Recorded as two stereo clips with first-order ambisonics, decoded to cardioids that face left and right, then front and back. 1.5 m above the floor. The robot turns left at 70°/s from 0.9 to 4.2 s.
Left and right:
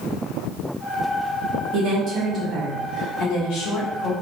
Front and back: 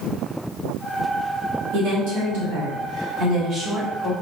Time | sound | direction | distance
1.7 | a woman speaking | 135° right | 2 m